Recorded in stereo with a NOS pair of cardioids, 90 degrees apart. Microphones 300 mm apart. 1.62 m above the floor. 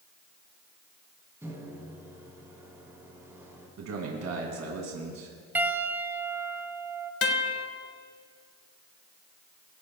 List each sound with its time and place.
1.4 s a microwave: 10° right, 3.5 m
3.8 s a man speaking: 60° right, 2.5 m
5.5 s a piano: 5° right, 1.3 m
7.2 s a guitar: 50° left, 1.5 m